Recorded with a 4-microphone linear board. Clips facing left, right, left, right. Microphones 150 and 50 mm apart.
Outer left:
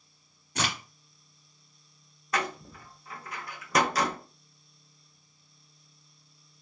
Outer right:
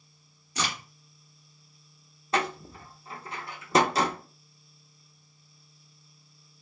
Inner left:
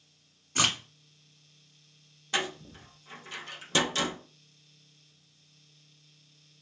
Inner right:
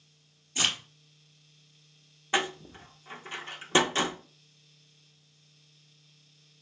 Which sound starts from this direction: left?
A crack, at 0.6 s.